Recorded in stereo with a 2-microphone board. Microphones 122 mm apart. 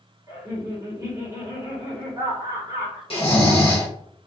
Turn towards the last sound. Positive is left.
turn(degrees=50)  # may be behind; listen again after turning